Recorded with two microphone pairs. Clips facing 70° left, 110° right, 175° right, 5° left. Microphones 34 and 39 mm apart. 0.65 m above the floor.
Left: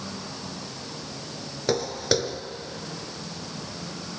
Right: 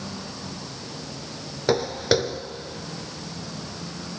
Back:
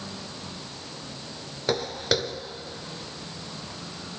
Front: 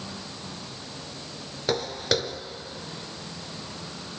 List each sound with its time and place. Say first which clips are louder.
1.7 s footsteps: right 3 dB, even; 100° right, 0.6 m